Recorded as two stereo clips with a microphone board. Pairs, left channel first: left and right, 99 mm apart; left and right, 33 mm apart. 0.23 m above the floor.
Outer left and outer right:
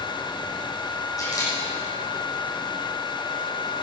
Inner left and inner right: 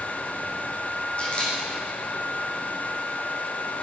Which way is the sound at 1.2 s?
40° left (ahead or behind).